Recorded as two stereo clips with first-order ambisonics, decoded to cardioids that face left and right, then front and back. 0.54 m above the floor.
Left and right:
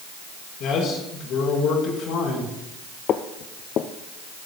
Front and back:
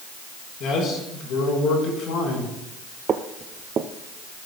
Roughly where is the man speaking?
Ahead left.